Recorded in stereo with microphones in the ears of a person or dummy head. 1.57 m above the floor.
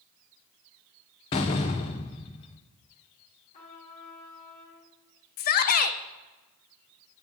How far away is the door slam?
About 0.5 m.